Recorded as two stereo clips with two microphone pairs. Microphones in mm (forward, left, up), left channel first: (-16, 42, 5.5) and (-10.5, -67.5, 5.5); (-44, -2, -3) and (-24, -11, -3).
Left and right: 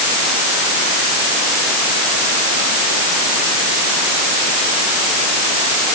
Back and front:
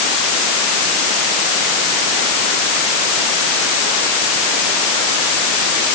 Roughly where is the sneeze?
I don't hear a sneeze.